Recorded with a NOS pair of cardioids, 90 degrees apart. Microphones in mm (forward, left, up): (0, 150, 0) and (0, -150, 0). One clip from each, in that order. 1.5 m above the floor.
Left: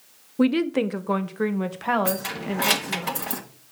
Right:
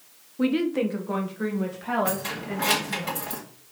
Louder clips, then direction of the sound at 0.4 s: Left 2 dB; 40° left.